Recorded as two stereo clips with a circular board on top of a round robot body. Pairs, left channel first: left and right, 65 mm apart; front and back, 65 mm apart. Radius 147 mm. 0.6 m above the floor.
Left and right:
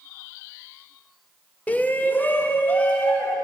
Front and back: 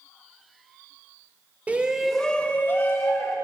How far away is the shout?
About 1.4 m.